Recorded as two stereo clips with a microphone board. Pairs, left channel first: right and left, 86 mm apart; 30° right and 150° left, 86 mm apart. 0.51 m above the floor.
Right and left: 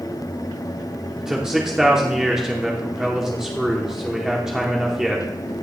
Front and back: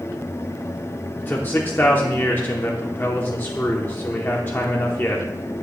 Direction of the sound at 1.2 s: 10° left.